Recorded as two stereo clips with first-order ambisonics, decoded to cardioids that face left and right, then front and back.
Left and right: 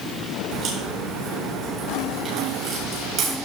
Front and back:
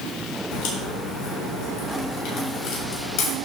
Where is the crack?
30° right, 7 m.